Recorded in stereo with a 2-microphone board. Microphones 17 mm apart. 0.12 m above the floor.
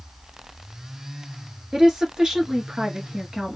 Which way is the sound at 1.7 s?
45° right (ahead or behind).